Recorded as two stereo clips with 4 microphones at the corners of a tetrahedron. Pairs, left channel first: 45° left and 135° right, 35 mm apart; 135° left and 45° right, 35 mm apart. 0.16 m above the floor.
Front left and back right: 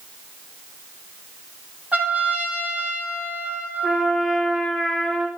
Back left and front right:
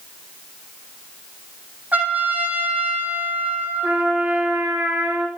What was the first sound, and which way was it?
A trumpet, 90° right.